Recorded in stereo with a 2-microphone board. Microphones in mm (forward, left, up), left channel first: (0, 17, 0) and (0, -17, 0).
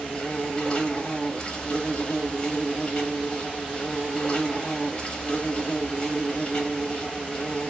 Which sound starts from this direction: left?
An insect, at 0.0 s.